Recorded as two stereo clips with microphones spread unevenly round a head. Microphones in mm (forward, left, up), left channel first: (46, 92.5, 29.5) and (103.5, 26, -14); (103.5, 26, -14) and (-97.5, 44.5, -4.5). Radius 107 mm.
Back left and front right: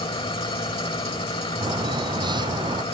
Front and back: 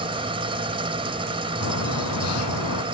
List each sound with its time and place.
0.0 s an engine running: 110° left
1.6 s a bird: 15° right